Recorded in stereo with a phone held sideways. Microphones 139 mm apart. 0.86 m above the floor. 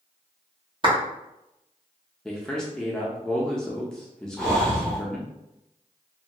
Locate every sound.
0.8 s a clap: 35° right (ahead or behind), 0.9 m
2.2 s a man speaking: 5° left (ahead or behind), 0.5 m
4.4 s breathing: 5° left (ahead or behind), 0.7 m